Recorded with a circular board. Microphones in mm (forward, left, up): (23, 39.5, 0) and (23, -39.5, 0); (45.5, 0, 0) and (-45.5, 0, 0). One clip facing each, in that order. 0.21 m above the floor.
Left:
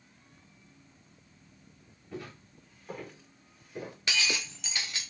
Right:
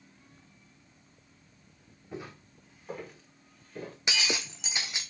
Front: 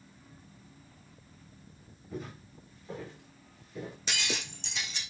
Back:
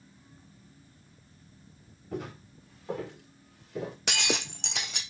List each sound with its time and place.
2.1 s footsteps: 160° right, 3.5 m; by 4.0 s 165° left, 3 m
4.1 s breaking glass: 160° right, 1.3 m